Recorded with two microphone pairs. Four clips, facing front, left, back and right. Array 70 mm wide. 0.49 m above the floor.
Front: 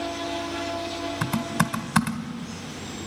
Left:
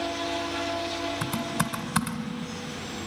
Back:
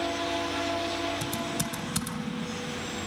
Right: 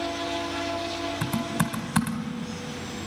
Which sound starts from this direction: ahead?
Typing on a keyboard, at 1.2 s.